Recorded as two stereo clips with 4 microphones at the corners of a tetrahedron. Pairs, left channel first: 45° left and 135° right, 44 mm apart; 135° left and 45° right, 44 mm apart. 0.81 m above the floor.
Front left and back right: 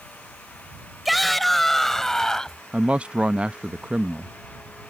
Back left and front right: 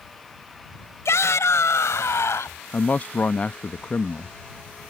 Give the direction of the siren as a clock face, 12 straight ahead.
I don't hear a siren.